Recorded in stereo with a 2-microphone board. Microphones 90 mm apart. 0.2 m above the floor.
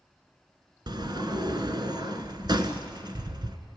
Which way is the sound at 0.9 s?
50° right (ahead or behind).